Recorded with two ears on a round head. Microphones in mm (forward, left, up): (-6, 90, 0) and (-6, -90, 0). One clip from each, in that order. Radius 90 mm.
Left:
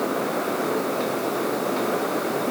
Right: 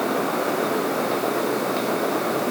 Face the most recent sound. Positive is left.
No sound to turn to.